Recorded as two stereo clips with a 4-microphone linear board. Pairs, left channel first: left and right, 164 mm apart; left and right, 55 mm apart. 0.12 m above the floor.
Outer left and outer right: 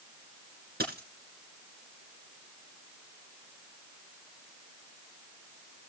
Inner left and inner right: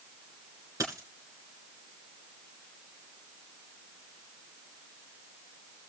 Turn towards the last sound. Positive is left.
turn(degrees=-75)  # may be behind; listen again after turning